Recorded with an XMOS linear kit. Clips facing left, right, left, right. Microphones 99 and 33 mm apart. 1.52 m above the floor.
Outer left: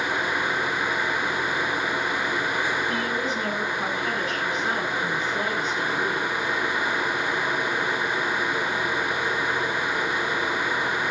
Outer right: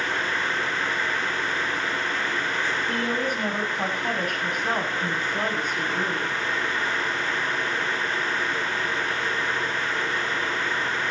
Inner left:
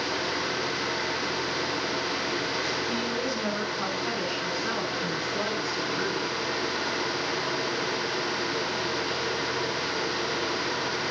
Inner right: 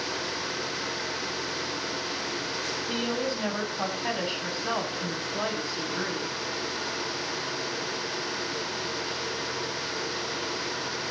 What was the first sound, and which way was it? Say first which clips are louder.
A woman speaking: even, even; 50° right (ahead or behind).